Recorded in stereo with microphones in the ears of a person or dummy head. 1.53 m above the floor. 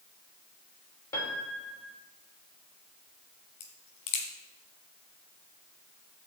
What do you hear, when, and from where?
1.1 s a piano: 25° left (ahead or behind), 2.5 m
3.6 s a crack: 40° left (ahead or behind), 2 m